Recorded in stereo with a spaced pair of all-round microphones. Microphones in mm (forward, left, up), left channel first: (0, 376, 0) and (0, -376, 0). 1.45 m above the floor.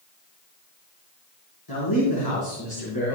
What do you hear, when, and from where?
1.7 s a man speaking: 30° left (ahead or behind), 4 m